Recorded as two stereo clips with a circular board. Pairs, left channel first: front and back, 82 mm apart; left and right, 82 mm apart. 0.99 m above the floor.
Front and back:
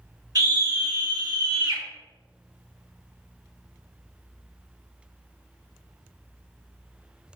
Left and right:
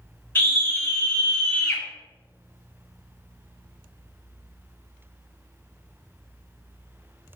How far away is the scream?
About 2.5 m.